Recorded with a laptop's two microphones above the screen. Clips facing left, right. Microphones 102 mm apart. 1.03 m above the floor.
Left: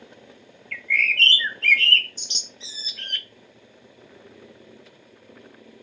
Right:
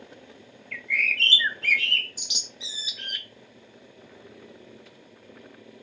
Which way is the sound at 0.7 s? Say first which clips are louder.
Left 4 dB; 10° right (ahead or behind).